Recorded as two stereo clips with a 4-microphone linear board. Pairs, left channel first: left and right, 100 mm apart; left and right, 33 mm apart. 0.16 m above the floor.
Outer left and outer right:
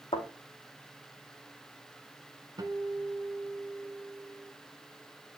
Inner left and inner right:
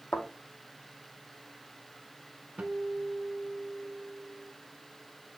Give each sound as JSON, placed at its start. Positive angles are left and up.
{"t": 0.1, "sound": "a thud", "side_deg": 75, "distance_m": 3.5}
{"t": 2.6, "sound": "a guitar", "side_deg": -40, "distance_m": 1.1}